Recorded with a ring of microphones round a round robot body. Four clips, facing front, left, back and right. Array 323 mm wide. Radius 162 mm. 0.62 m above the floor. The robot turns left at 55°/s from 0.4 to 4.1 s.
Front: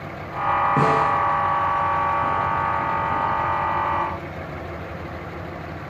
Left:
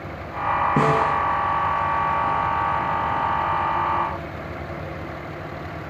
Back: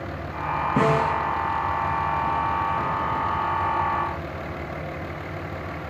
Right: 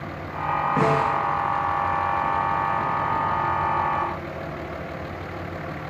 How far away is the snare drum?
About 1.2 m.